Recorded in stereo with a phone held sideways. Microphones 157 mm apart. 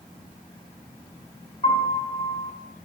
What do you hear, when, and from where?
1.6 s a piano: 35° left (ahead or behind), 4 m